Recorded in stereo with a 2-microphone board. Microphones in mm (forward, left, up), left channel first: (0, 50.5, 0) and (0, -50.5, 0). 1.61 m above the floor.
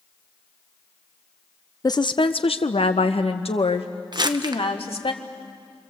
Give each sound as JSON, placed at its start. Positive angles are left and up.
{"t": 1.8, "sound": "a woman speaking", "side_deg": 35, "distance_m": 0.6}
{"t": 4.1, "sound": "crumpling", "side_deg": -45, "distance_m": 0.8}